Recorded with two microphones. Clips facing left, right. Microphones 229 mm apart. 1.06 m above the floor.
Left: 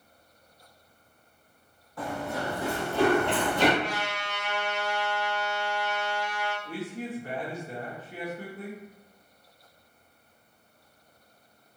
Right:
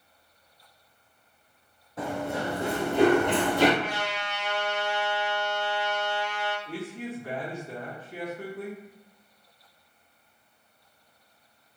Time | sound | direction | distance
2.0 | running footsteps | 25° right (ahead or behind) | 1.5 m
3.8 | a trumpet | 5° right (ahead or behind) | 1.3 m
6.7 | a man speaking | 30° left (ahead or behind) | 1.2 m